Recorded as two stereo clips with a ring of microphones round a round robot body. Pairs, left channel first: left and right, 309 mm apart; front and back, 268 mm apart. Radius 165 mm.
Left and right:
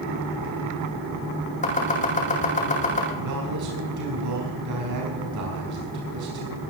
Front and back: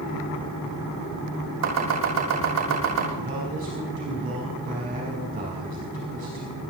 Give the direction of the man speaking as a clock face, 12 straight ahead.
4 o'clock.